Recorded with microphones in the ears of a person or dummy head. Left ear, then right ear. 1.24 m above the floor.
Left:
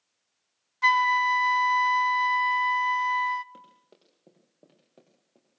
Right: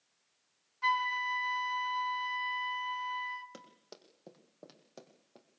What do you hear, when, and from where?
0.8 s a flute: 40° left (ahead or behind), 0.7 m
3.5 s running footsteps: 70° right (ahead or behind), 4 m